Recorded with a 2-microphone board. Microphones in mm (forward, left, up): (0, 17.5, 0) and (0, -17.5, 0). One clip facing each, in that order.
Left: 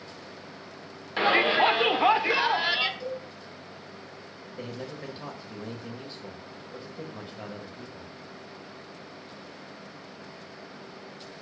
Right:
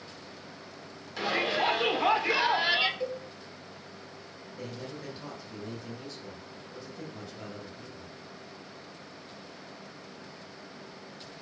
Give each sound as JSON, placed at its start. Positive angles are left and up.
{"t": 1.2, "sound": "a shout", "side_deg": 40, "distance_m": 1.1}
{"t": 3.0, "sound": "a cowbell", "side_deg": -40, "distance_m": 6.0}
{"t": 4.6, "sound": "a man speaking", "side_deg": 30, "distance_m": 2.5}